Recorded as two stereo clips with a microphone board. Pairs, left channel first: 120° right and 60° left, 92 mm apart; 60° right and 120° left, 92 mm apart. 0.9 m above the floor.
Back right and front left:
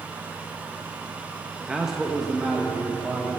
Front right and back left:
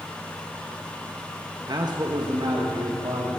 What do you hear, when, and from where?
1.7 s a man speaking: 135° left, 0.9 m; by 3.4 s 160° left, 2 m